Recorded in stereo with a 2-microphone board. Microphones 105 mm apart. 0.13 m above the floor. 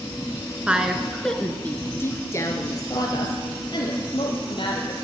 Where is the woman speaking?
10° right (ahead or behind), 1.6 m; by 4.9 s 50° left (ahead or behind), 3.5 m.